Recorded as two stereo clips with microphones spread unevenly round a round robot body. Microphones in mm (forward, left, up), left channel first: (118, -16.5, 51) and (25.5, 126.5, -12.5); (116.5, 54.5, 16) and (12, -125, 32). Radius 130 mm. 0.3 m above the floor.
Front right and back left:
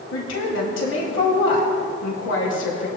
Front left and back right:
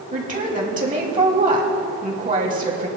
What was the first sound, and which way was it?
A woman speaking, 70° right.